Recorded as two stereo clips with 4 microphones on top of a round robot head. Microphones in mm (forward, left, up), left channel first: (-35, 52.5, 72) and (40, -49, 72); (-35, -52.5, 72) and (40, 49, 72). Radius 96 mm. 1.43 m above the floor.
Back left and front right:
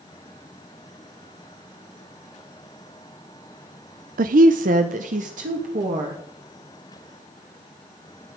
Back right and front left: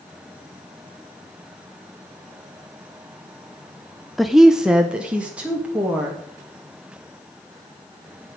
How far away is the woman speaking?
About 0.5 m.